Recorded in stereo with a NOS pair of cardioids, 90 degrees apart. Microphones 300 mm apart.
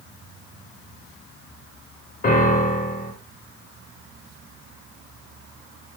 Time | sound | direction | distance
2.2 | a piano | 30° left | 1.1 m